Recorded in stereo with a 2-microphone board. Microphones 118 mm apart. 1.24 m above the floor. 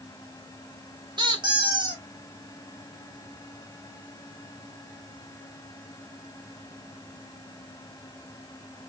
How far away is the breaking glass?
No breaking glass in this recording.